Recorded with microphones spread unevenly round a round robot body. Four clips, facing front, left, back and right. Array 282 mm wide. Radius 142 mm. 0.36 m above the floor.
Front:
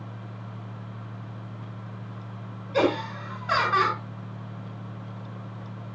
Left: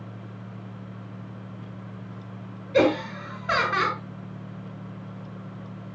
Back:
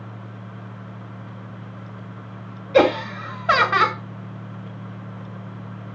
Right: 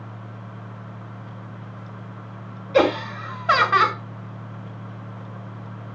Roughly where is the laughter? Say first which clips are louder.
Right 2 dB, back 7 dB; behind.